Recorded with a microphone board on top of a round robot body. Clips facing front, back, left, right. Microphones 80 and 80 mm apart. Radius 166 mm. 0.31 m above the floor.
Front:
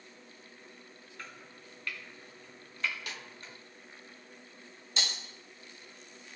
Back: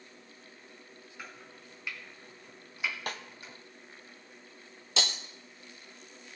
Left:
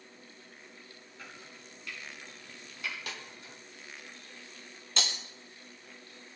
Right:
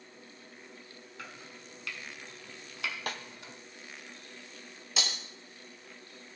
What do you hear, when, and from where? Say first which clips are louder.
1.2 s chopping: back 1 dB, right 2 dB; 100° right, 1.8 m
3.1 s a snare drum: back 6 dB, right 5 dB; 135° right, 0.8 m
5.0 s breaking glass: back 4 dB, even; 175° right, 0.6 m